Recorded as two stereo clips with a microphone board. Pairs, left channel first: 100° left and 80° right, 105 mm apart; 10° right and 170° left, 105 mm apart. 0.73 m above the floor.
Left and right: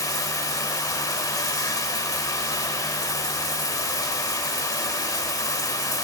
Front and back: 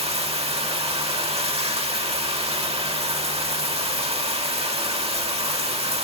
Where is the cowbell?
I don't hear a cowbell.